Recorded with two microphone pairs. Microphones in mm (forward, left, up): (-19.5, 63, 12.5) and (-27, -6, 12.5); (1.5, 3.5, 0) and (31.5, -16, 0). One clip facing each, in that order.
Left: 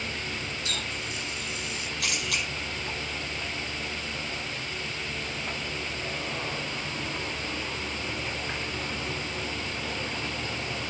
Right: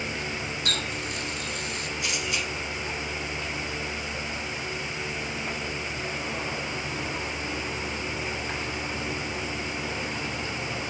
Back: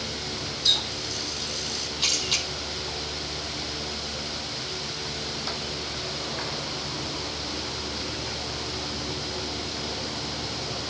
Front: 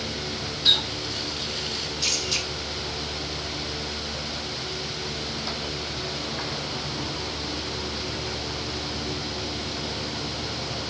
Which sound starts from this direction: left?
A camera shutter, at 2.0 s.